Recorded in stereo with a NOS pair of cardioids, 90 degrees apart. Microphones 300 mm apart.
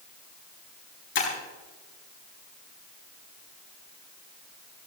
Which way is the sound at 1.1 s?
40° left.